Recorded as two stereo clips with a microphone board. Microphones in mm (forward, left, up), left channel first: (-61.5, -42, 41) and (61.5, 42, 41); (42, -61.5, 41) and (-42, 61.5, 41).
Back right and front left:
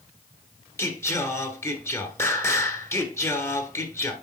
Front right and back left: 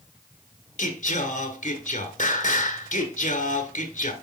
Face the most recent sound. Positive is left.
turn(degrees=-75)